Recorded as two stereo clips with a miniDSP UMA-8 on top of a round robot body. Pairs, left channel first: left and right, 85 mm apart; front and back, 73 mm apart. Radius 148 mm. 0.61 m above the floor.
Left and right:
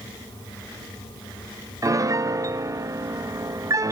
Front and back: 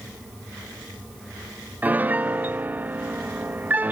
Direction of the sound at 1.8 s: 120° right.